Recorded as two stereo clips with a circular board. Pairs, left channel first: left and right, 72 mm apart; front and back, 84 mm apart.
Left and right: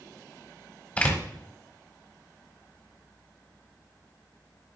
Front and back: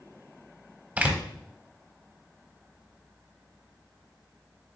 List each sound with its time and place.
1.0 s a door slam: 130° left, 1.1 m